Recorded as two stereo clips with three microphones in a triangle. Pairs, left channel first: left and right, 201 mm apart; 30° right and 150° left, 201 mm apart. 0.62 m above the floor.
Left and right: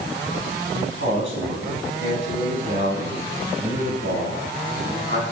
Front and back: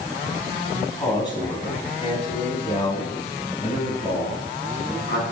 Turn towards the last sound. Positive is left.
turn(degrees=-65)